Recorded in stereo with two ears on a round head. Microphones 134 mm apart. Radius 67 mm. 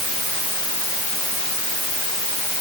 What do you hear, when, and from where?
Only background noise.